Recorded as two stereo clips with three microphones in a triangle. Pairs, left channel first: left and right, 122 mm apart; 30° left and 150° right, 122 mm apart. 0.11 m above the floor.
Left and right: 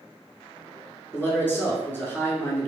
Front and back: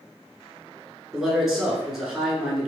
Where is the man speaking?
130° left, 1.1 m.